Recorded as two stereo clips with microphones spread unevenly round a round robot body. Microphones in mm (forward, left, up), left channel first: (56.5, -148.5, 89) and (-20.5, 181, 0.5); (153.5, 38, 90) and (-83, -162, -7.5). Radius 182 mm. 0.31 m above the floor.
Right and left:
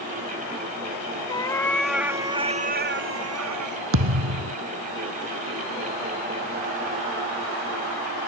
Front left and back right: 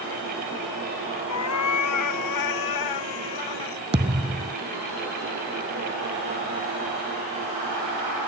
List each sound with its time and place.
1.3 s a cat meowing: straight ahead; by 3.8 s 65° left
3.9 s a thud: 145° left